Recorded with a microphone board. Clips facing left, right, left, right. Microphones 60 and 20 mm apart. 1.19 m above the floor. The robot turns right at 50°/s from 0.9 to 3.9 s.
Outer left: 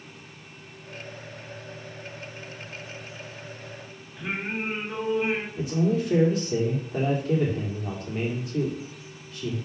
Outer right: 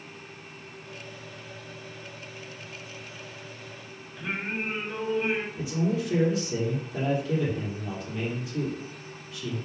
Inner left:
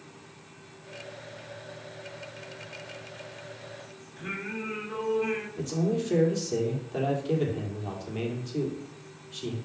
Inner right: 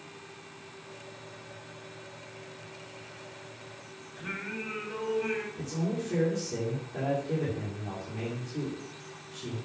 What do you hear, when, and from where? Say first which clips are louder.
4.2 s singing: outer left 1 dB, inner left 2 dB; 15° left (ahead or behind), 2.5 m
5.6 s a man speaking: outer left 3 dB, inner left 4 dB; 50° left (ahead or behind), 3 m